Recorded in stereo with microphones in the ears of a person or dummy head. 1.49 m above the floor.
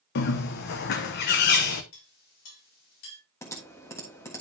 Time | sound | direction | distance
0.1 | a bird | 55° left (ahead or behind) | 0.8 m
1.9 | a clink | 75° left (ahead or behind) | 5.5 m
3.4 | typing on a keyboard | 15° left (ahead or behind) | 1.4 m